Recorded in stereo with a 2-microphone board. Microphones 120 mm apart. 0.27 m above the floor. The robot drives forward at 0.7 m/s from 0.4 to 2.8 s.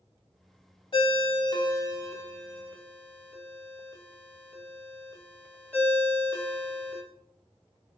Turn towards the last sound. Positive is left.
turn(degrees=20)  # may be behind; listen again after turning